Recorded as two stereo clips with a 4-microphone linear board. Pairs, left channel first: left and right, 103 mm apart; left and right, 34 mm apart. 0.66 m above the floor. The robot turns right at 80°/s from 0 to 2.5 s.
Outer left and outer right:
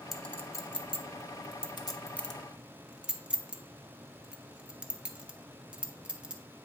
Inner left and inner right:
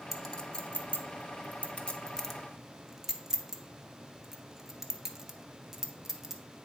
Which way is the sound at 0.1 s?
Centre (ahead or behind).